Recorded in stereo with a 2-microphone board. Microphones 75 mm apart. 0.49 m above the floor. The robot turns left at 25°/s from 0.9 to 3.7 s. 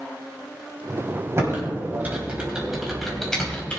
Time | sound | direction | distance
1.4 | typing on a keyboard | 40° right (ahead or behind) | 3.5 m